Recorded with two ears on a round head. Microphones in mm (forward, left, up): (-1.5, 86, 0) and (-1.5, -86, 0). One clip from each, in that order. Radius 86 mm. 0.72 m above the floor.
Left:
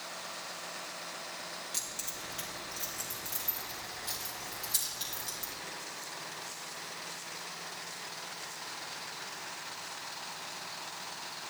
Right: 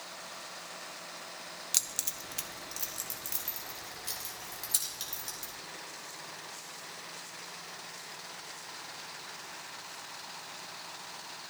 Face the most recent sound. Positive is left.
turn(degrees=-15)  # may be behind; listen again after turning